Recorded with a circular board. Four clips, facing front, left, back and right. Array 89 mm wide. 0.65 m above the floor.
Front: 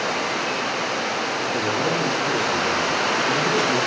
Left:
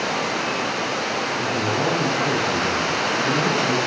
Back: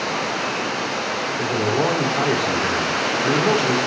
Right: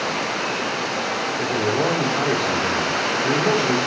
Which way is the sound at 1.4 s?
145° right.